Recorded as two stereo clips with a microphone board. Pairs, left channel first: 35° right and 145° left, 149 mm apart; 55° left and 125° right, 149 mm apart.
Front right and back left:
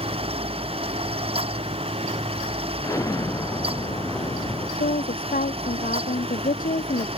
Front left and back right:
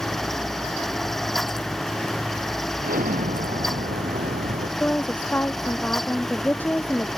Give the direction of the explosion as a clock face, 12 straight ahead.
3 o'clock.